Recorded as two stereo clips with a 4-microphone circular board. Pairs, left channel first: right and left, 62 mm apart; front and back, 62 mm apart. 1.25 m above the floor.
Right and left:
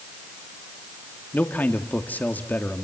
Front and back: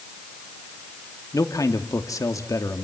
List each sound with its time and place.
1.3 s a man speaking: 30° right, 2 m